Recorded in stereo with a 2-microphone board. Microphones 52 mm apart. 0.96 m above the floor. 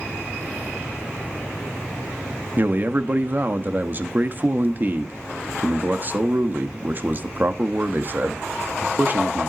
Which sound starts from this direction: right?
A man speaking, at 2.6 s.